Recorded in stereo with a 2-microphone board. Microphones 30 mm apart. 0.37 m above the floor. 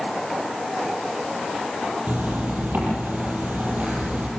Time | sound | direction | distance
2.1 | a zipper | 65° right (ahead or behind) | 8 m